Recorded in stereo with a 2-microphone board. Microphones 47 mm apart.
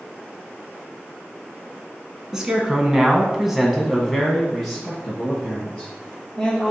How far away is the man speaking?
About 1.5 m.